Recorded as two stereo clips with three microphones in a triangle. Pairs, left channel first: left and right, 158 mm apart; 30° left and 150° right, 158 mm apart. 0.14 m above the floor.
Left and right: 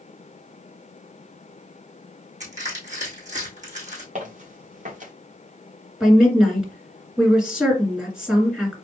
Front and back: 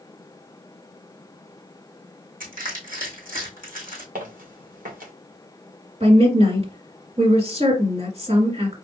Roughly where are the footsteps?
Behind right.